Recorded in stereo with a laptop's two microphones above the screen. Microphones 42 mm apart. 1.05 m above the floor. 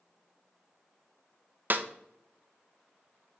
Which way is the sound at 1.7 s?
45° right (ahead or behind).